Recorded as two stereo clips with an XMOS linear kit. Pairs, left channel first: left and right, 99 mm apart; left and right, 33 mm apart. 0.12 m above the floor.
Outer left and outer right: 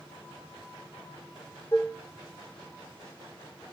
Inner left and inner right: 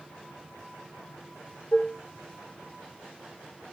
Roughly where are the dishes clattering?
Left.